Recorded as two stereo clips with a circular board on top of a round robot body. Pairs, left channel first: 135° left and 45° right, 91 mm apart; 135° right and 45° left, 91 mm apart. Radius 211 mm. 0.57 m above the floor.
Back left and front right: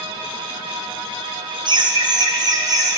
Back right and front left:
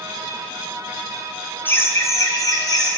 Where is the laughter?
70° right, 1.2 m; by 3.0 s 90° right, 2 m.